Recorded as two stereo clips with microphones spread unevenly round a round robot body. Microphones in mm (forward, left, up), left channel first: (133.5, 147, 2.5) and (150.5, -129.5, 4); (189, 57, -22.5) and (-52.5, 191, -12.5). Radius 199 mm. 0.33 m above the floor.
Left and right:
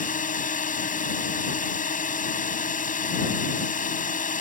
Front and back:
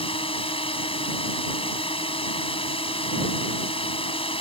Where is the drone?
40° left.